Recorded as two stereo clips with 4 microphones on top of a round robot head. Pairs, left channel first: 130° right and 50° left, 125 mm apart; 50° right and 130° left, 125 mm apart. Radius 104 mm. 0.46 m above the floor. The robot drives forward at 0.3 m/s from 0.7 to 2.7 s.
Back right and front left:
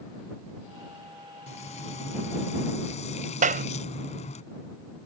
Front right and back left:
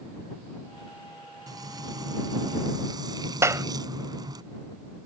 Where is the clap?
65° left.